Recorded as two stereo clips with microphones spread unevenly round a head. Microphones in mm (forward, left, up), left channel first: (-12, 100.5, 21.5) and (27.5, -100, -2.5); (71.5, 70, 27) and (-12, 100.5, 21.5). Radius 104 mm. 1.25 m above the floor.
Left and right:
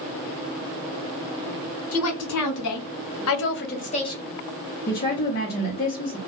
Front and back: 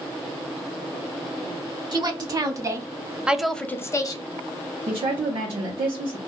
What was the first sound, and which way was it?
A woman speaking, 120° left.